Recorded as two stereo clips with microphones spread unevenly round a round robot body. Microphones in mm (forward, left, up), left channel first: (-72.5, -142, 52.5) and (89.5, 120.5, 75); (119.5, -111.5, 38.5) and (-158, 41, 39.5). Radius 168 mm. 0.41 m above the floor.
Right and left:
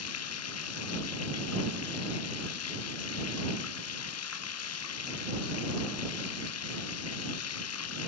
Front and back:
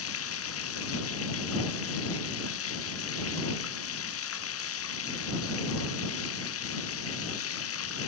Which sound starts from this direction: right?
Running water, at 0.0 s.